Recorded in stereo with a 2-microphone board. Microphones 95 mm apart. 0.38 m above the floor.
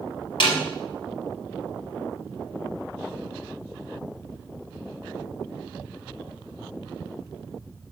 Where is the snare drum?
60° left (ahead or behind), 3.5 m.